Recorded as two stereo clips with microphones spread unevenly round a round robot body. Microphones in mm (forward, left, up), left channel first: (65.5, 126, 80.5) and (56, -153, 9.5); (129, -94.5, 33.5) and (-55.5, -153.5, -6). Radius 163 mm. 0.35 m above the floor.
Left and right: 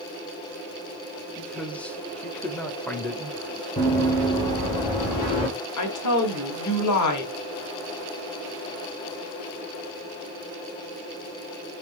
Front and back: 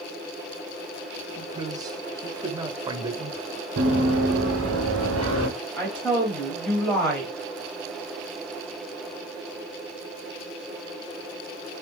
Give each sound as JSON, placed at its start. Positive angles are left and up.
{"t": 1.4, "sound": "a man speaking", "azimuth_deg": -165, "distance_m": 1.0}
{"t": 3.8, "sound": "running footsteps", "azimuth_deg": 165, "distance_m": 2.5}
{"t": 5.8, "sound": "a woman speaking", "azimuth_deg": 110, "distance_m": 2.0}